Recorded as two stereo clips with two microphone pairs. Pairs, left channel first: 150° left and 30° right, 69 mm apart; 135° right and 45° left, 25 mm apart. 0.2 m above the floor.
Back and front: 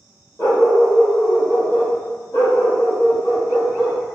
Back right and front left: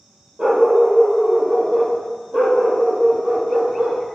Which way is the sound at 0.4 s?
105° left.